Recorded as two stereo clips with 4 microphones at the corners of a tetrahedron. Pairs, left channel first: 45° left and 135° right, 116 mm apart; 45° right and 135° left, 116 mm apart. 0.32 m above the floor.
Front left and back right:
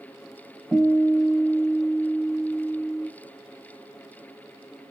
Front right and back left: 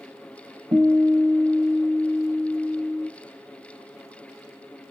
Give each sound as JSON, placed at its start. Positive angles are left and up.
{"t": 0.7, "sound": "a guitar", "azimuth_deg": 155, "distance_m": 1.5}